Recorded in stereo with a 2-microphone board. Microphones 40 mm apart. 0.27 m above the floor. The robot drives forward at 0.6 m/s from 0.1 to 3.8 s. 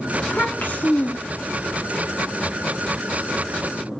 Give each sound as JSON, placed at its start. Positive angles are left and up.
{"t": 0.2, "sound": "a child speaking", "side_deg": 40, "distance_m": 1.9}